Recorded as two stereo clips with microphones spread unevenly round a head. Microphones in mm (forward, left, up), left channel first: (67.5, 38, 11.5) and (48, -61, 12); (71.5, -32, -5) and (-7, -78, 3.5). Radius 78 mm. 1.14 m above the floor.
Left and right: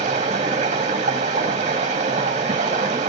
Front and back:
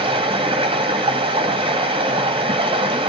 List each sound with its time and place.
0.0 s running water: 130° right, 2 m